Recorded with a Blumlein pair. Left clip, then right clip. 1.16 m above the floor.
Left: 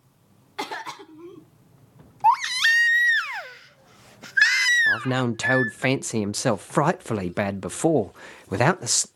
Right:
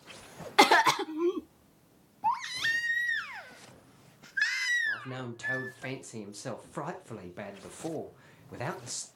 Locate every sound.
0.6 s a cough: 30° right, 0.7 m
2.2 s a baby crying: 30° left, 0.6 m
4.9 s a man speaking: 55° left, 0.8 m